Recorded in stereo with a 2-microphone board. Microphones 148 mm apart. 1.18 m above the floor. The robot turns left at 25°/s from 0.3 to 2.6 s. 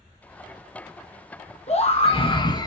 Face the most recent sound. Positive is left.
turn(degrees=25)  # may be behind; listen again after turning